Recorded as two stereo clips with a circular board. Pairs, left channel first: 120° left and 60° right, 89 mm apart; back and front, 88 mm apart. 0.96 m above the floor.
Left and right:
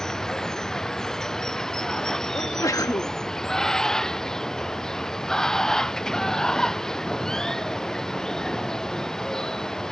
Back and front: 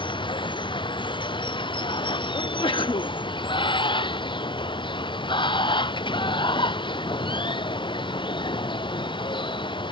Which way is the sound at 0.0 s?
155° right.